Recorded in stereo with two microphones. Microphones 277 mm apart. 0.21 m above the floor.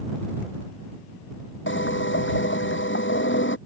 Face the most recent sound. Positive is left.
turn(degrees=45)  # may be behind; listen again after turning